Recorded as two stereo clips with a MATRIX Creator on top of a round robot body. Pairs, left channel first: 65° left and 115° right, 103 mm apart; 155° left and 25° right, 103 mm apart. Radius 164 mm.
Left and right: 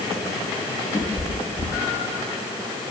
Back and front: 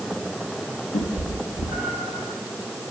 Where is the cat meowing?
160° left, 4 m; by 2.2 s 150° left, 5 m.